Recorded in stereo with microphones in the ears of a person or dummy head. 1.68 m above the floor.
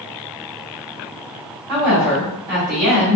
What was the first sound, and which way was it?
A woman speaking, 55° right (ahead or behind).